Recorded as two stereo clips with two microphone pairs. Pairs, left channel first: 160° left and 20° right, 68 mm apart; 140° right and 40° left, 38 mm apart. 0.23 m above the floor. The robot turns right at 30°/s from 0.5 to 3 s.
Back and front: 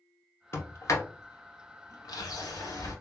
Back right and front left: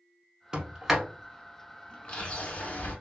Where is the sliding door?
110° left, 0.9 m; by 3.0 s 175° right, 0.9 m.